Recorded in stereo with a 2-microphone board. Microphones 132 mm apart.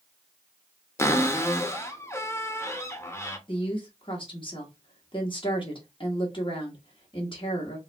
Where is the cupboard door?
20° left (ahead or behind), 0.5 m.